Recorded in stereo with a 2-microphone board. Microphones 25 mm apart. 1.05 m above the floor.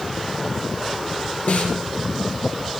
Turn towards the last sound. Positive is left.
turn(degrees=75)  # may be behind; listen again after turning